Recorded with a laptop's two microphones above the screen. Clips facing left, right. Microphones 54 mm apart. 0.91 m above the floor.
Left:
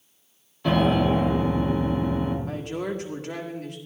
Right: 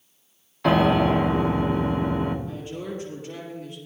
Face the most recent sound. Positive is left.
turn(degrees=75)  # may be behind; listen again after turning